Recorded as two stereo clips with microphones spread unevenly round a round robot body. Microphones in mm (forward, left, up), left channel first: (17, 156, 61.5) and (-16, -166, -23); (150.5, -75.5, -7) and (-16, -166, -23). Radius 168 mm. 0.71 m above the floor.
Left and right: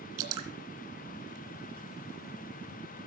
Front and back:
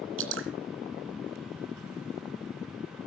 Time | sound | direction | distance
0.2 | dripping | 140° right | 2.5 m